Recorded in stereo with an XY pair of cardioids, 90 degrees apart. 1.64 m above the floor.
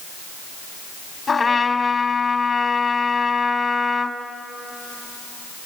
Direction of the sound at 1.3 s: 40° left.